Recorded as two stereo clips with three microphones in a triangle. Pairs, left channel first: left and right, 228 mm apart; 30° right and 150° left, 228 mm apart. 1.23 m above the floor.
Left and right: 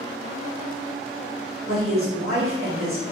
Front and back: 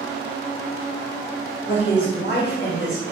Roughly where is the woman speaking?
Right.